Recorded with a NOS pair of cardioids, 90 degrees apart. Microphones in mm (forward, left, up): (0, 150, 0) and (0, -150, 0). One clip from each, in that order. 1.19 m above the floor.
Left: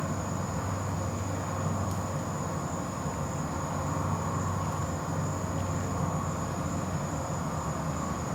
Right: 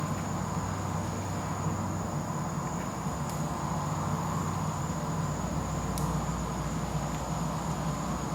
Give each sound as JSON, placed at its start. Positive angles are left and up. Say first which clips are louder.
{"t": 0.0, "sound": "an insect", "louder": "even", "azimuth_deg": 70, "distance_m": 1.1}